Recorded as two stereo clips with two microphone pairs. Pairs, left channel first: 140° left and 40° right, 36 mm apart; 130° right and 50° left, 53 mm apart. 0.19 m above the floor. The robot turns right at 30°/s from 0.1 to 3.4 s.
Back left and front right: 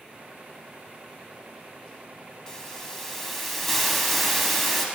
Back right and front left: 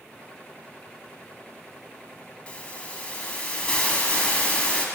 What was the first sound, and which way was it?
A hiss, 165° right.